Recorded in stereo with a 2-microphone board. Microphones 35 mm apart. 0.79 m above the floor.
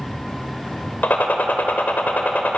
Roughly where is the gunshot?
Left.